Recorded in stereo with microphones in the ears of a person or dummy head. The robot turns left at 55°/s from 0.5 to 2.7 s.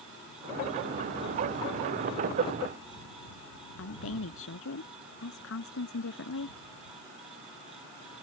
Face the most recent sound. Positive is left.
turn(degrees=75)  # may be behind; listen again after turning